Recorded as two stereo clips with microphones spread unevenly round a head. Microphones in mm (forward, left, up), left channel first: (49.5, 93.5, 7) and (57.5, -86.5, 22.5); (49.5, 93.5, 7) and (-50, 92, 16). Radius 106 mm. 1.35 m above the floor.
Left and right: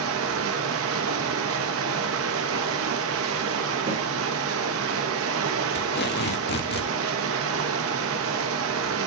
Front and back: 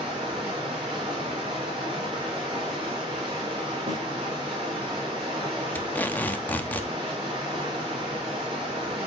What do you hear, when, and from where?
0.0 s running water: 110° right, 1.3 m
3.9 s a snare drum: 145° right, 3 m
5.8 s tape being pulled: 75° left, 1.1 m